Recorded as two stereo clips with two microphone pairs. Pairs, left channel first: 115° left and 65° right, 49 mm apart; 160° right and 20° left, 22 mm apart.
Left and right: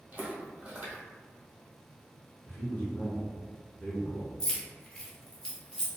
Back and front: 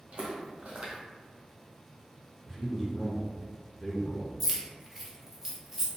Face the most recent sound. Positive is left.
turn(degrees=65)